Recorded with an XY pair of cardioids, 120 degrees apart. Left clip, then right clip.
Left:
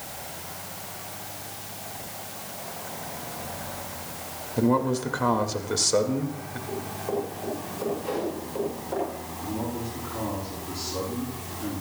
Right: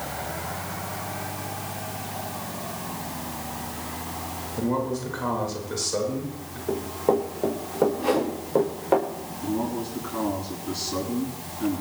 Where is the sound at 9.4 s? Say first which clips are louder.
Right 4 dB; 35° right, 7.5 m.